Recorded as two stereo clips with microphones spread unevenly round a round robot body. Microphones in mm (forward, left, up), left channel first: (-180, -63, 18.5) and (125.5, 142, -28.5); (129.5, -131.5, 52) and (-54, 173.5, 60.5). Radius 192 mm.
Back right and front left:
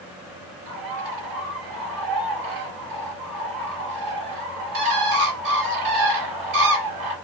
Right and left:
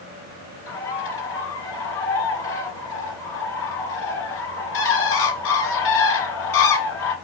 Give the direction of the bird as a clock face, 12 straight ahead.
12 o'clock.